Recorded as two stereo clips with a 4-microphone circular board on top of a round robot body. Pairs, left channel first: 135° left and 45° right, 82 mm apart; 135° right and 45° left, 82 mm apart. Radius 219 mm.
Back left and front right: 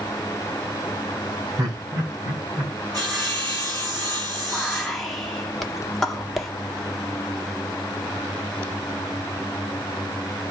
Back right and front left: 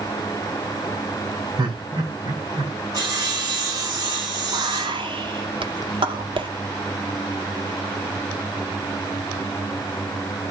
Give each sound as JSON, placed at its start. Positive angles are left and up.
{"t": 1.6, "sound": "laughter", "azimuth_deg": 5, "distance_m": 8.5}
{"t": 2.9, "sound": "sawing", "azimuth_deg": 0, "distance_m": 7.5}
{"t": 4.5, "sound": "whispering", "azimuth_deg": 45, "distance_m": 1.9}